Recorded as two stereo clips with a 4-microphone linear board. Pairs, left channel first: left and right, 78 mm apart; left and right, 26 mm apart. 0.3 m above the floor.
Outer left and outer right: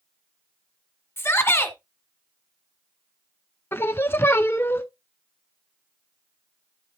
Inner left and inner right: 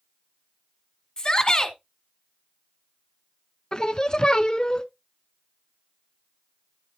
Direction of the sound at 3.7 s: 30° left (ahead or behind).